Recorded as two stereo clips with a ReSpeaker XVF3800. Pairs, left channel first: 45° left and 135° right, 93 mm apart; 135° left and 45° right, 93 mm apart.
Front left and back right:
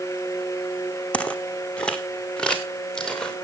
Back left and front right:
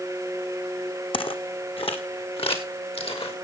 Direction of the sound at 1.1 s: 120° left.